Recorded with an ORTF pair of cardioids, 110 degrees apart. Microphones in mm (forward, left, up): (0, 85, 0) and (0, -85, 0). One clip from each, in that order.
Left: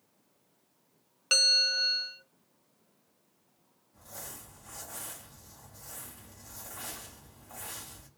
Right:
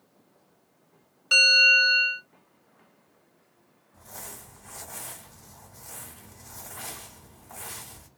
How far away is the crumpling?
About 1.5 m.